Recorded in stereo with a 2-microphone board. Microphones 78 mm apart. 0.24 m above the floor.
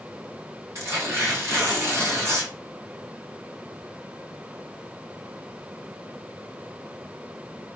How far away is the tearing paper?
About 1.3 m.